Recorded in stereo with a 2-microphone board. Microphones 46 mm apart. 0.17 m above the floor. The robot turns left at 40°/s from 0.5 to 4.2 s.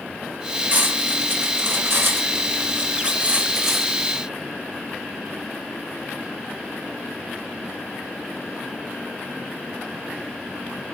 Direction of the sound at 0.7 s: 40° right (ahead or behind).